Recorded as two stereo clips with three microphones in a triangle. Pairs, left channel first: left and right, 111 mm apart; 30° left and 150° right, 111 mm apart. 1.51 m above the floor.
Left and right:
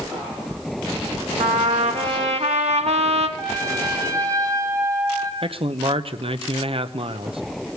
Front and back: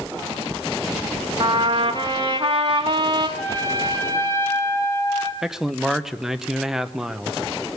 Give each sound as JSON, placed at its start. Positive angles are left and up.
{"t": 1.4, "sound": "a trumpet", "azimuth_deg": -105, "distance_m": 1.9}
{"t": 3.4, "sound": "a trumpet", "azimuth_deg": -35, "distance_m": 2.5}
{"t": 5.4, "sound": "a man speaking", "azimuth_deg": -65, "distance_m": 0.8}